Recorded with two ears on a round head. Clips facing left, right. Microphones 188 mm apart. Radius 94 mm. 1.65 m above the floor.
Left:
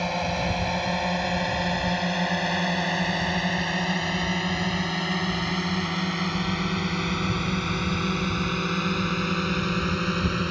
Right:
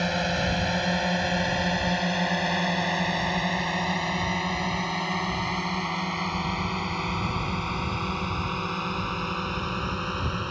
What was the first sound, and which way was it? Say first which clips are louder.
A drone: even; 15° right (ahead or behind).